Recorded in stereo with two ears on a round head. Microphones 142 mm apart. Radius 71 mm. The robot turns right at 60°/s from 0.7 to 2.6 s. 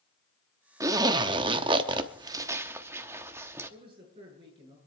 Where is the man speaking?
35° right (ahead or behind), 7.5 m.